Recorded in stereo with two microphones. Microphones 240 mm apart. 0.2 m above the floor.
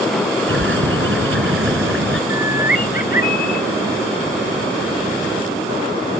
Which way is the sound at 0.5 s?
55° right (ahead or behind).